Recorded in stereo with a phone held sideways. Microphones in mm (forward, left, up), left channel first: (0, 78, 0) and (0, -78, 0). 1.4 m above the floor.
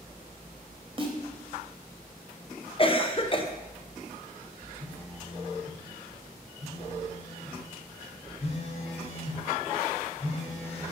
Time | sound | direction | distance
1.0 | a snare drum | 35° right (ahead or behind) | 1.1 m
2.8 | a cough | 35° left (ahead or behind) | 0.7 m
4.8 | a phone buzzing | 40° left (ahead or behind) | 1.1 m